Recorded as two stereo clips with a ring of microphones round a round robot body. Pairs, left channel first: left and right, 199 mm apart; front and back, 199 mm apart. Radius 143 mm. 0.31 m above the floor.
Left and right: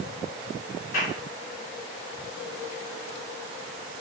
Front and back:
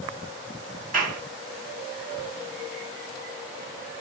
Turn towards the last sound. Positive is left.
turn(degrees=140)